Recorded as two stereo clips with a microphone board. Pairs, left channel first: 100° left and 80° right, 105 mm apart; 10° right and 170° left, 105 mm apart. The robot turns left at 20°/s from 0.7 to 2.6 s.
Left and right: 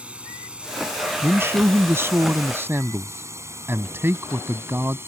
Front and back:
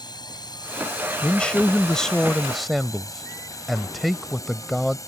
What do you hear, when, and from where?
0.0 s a drone: 5° right; by 5.1 s 30° right
1.2 s a man speaking: 70° right; by 5.0 s 100° right